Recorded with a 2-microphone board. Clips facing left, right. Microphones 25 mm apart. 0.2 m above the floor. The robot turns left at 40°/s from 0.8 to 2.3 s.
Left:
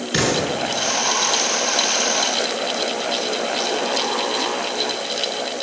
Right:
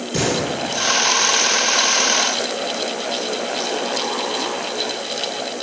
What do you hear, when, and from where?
0.1 s an explosion: 55° left (ahead or behind), 2.5 m